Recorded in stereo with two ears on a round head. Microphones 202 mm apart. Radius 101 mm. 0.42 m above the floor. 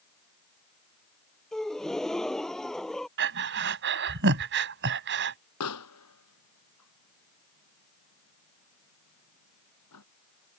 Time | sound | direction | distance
1.5 | a gasp | centre (ahead or behind) | ?
3.2 | breathing | 55° right (ahead or behind) | ?
5.6 | a pop | 85° left | ?